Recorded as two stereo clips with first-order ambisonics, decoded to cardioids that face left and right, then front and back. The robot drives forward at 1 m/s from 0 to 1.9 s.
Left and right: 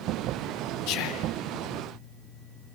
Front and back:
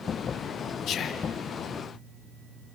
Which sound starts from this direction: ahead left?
Whispering, at 0.9 s.